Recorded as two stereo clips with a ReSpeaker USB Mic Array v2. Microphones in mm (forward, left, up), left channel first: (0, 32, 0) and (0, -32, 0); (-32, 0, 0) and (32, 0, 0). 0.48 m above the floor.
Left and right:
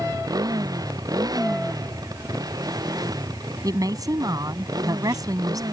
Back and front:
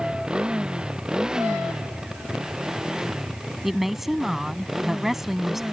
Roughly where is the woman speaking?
Right.